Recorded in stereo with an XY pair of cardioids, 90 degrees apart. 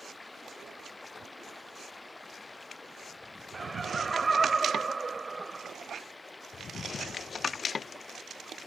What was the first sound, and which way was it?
Running water, 25° left.